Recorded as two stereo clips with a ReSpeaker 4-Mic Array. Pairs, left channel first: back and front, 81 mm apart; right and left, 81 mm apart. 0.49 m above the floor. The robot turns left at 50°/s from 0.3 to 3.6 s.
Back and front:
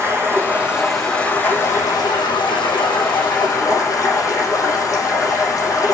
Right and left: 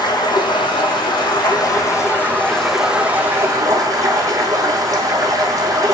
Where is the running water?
60° right, 4 m; by 6.0 s 135° left, 4 m.